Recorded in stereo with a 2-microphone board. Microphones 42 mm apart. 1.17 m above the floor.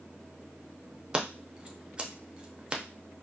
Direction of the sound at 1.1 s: 20° right (ahead or behind).